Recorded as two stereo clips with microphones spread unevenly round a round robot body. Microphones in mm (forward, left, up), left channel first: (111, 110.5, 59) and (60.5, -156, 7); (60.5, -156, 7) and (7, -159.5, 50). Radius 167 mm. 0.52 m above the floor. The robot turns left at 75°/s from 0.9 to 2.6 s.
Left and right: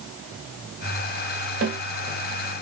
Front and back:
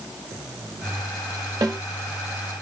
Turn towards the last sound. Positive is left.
turn(degrees=130)